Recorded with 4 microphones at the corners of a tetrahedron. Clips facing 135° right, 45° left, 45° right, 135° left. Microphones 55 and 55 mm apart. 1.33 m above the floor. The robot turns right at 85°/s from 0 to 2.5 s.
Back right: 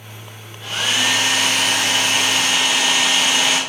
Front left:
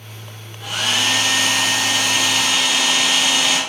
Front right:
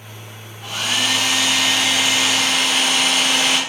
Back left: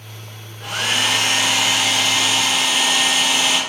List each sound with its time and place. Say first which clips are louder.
0.6 s a hair dryer: even, back left 1 dB; 115° left, 3 m; by 3.6 s 80° right, 3 m